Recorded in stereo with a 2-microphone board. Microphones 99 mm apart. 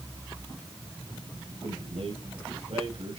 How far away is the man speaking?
About 5.5 m.